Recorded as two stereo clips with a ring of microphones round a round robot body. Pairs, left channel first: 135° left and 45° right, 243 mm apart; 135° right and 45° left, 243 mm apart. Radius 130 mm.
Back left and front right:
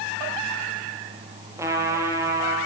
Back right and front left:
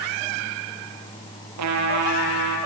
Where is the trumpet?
35° left, 6.5 m.